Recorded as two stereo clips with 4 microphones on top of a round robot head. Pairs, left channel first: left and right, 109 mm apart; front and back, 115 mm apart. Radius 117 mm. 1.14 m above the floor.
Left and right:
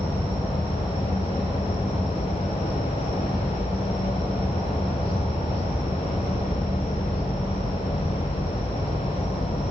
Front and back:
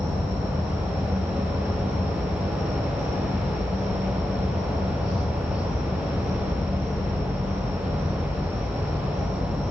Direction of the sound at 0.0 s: 55° right.